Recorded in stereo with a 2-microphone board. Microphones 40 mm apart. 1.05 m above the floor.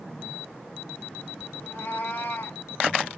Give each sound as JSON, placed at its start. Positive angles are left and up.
{"t": 1.6, "sound": "a cat meowing", "side_deg": 85, "distance_m": 3.5}